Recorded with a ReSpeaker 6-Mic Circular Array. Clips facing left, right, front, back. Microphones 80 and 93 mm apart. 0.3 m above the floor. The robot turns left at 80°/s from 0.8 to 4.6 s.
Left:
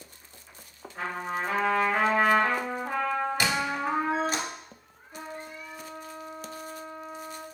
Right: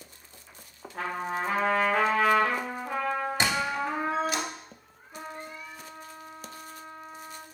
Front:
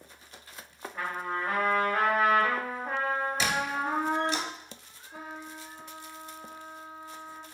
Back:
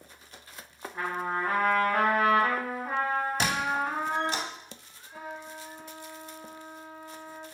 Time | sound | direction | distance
0.9 | a trumpet | 105° right | 1.3 m
3.4 | a squeak | 145° right | 0.6 m
5.1 | a trumpet | 5° right | 1.3 m